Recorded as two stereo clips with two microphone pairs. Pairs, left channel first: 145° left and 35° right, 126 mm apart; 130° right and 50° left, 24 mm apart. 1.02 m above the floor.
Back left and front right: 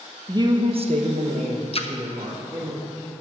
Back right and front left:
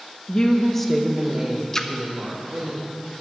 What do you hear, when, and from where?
0.3 s a woman speaking: 85° right, 1.2 m; by 2.7 s 15° left, 2.5 m
1.7 s a splash: 165° left, 0.7 m